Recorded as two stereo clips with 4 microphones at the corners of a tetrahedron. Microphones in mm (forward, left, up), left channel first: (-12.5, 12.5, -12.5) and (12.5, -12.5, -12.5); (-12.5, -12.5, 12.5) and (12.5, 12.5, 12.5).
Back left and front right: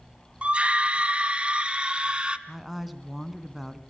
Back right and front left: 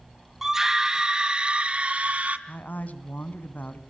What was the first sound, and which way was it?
A scream, 25° right.